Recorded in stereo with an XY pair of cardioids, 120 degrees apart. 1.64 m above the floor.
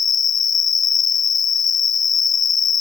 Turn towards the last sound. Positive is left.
turn(degrees=40)